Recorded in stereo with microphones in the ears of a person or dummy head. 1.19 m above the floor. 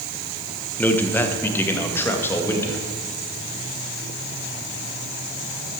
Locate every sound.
0.8 s a man speaking: 10° left (ahead or behind), 1.0 m; by 2.8 s 15° left (ahead or behind), 2.5 m